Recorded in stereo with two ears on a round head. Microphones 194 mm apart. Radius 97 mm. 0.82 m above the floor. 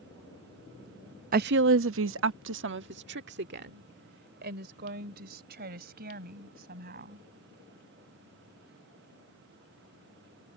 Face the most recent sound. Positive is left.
turn(degrees=-45)  # may be behind; listen again after turning